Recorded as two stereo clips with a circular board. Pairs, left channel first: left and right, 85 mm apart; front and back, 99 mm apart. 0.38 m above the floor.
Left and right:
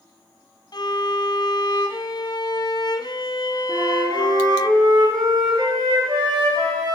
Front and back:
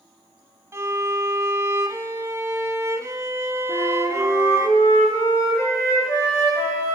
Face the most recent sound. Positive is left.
turn(degrees=-55)